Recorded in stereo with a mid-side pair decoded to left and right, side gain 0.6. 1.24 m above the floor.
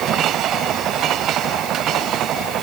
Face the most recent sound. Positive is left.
No sound to turn to.